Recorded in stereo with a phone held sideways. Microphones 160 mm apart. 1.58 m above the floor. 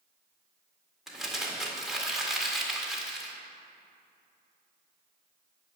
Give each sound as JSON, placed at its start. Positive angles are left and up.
{"t": 1.1, "sound": "crumpling", "side_deg": 0, "distance_m": 1.9}